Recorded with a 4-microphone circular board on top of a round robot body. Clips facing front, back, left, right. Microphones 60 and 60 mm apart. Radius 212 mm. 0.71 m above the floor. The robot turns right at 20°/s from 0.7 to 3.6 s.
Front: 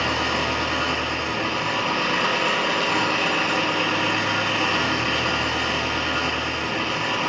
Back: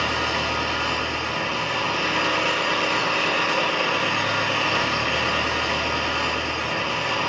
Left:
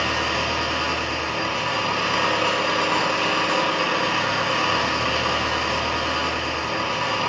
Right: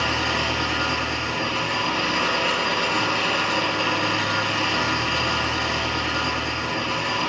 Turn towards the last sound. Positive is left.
turn(degrees=85)